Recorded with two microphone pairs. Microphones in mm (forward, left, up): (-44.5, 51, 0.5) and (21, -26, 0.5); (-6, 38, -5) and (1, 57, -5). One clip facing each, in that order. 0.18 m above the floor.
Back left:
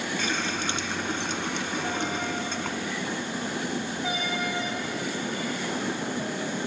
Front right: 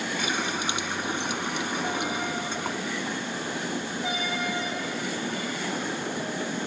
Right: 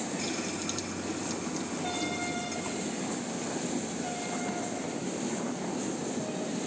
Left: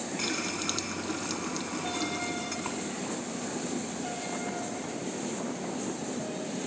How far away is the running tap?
About 1.3 m.